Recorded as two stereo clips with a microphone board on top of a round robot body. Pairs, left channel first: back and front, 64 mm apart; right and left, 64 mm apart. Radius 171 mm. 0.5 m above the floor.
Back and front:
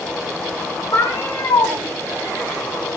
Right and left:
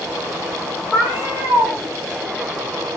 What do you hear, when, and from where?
0.9 s a cat meowing: 165° left, 6.5 m